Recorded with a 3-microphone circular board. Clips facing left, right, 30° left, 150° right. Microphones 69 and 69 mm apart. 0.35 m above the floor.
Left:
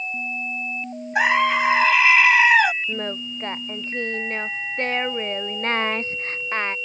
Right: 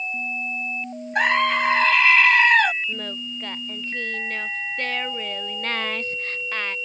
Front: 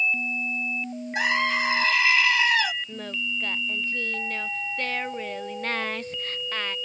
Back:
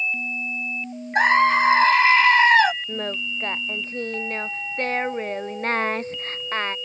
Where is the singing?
155° left.